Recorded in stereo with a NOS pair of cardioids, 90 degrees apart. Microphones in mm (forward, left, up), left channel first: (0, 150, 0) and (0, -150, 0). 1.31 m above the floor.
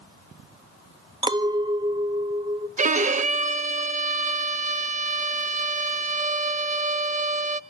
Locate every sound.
1.2 s a clink: 15° right, 1.2 m
2.8 s a violin: 25° right, 1.0 m